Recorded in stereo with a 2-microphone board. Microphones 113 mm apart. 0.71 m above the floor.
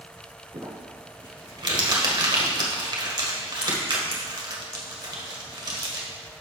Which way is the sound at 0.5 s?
40° right (ahead or behind).